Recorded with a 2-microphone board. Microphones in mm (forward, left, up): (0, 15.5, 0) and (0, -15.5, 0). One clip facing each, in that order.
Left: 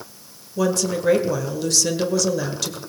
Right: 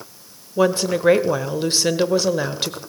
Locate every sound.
0.6 s a woman speaking: 30° right (ahead or behind), 1.2 m